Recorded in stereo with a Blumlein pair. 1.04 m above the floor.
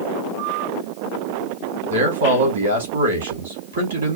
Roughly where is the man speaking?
Right.